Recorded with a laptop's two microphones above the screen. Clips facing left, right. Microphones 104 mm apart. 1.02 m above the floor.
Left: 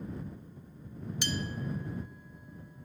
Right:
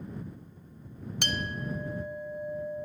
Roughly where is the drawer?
I don't hear a drawer.